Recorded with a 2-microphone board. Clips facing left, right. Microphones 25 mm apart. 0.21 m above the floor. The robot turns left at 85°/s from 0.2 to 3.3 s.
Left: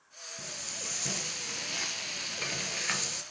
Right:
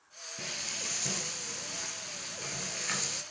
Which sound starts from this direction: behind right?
Frying, at 0.4 s.